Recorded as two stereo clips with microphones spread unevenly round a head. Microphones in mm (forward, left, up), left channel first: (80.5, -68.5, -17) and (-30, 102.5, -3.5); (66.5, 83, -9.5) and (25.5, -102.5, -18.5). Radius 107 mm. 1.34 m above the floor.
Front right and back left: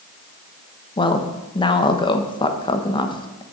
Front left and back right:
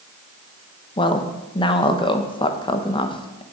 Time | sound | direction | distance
1.0 | a woman speaking | 10° left | 1.1 m